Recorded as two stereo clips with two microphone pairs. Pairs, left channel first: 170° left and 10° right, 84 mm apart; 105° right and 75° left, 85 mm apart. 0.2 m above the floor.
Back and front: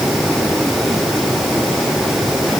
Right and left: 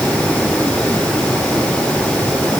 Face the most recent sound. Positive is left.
No sound to turn to.